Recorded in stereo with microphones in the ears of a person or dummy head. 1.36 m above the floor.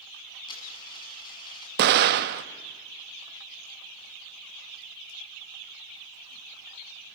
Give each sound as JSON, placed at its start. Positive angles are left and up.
{"t": 0.5, "sound": "a dropped coin", "side_deg": 25, "distance_m": 6.0}
{"t": 1.8, "sound": "an explosion", "side_deg": -55, "distance_m": 1.1}